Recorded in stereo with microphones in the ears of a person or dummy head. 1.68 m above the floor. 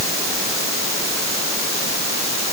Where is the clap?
No clap in this recording.